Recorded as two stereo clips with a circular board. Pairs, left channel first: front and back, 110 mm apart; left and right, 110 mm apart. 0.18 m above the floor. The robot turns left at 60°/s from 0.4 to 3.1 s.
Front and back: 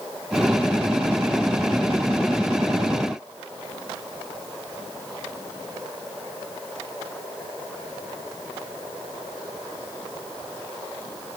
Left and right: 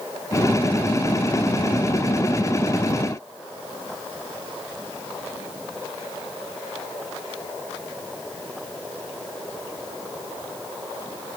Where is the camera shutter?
I don't hear a camera shutter.